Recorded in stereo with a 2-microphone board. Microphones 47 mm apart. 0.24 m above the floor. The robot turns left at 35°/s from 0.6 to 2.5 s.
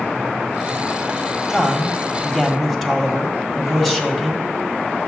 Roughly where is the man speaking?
Centre.